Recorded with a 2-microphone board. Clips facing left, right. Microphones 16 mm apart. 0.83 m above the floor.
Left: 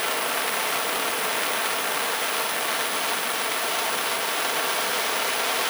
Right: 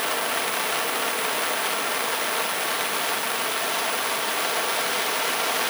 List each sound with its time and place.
Only background noise.